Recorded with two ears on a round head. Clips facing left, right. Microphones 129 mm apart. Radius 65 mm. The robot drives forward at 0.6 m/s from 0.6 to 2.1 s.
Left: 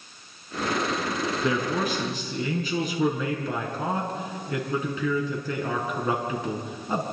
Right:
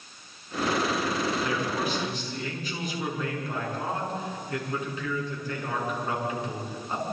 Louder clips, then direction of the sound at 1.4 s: Left 3 dB; 75° left (ahead or behind).